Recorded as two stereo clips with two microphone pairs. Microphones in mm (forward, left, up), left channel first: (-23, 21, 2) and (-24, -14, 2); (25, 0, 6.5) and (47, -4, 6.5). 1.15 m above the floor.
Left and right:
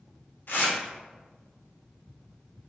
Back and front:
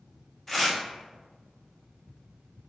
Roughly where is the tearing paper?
Left.